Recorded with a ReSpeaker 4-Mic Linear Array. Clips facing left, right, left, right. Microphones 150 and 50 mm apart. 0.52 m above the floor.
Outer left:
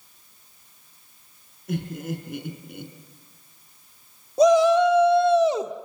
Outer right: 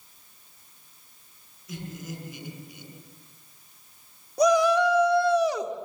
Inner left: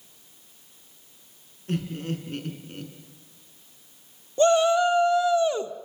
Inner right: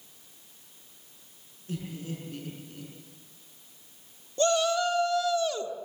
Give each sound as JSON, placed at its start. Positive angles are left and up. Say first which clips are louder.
{"t": 1.7, "sound": "laughter", "louder": "outer left 8 dB, inner left 7 dB", "side_deg": 60, "distance_m": 5.5}
{"t": 4.4, "sound": "a shout", "louder": "outer left 4 dB, inner left 6 dB", "side_deg": 25, "distance_m": 1.3}